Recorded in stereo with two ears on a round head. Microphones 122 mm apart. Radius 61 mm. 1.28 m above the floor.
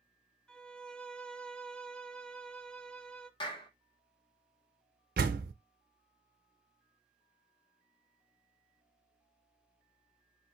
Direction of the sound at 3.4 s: 35° left (ahead or behind).